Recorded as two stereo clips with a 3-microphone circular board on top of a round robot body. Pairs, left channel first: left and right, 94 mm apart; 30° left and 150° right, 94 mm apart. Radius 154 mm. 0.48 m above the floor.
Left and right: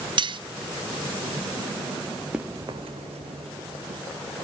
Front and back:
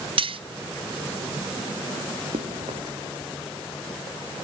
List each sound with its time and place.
0.2 s cutlery clinking: 125° right, 0.5 m
2.3 s running footsteps: 170° right, 0.8 m; by 4.0 s 50° right, 1.7 m